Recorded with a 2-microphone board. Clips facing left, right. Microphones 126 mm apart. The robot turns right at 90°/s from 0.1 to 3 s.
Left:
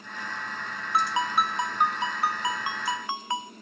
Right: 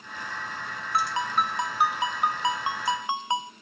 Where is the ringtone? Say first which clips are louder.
Left 1 dB; 20° left (ahead or behind), 0.5 m; by 3.5 s 20° right (ahead or behind), 0.5 m.